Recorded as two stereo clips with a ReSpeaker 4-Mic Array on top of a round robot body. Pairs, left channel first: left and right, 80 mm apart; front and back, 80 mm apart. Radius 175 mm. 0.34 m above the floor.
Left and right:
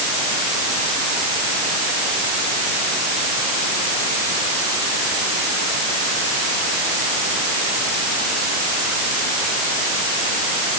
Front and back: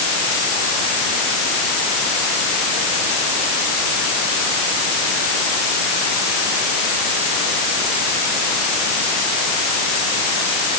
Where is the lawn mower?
No lawn mower in this recording.